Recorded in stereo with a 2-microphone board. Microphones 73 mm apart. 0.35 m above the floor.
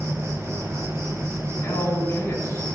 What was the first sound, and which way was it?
An insect, 40° right (ahead or behind).